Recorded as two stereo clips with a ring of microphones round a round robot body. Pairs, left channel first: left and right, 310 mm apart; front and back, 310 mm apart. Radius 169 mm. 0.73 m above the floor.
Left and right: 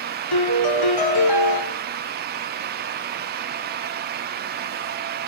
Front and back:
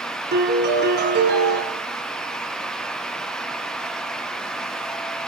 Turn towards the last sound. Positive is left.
turn(degrees=115)